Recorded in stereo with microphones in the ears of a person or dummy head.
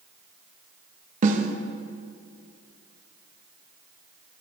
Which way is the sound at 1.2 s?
50° right (ahead or behind).